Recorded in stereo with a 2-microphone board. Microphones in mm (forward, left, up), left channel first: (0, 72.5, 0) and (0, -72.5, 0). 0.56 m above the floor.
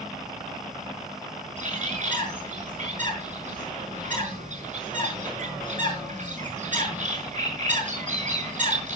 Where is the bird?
55° right (ahead or behind), 4.5 m.